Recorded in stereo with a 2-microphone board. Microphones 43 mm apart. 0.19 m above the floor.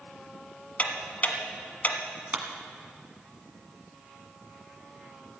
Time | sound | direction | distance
0.8 | ticking | 40° left (ahead or behind) | 1.2 m
2.3 | a clap | 35° right (ahead or behind) | 1.4 m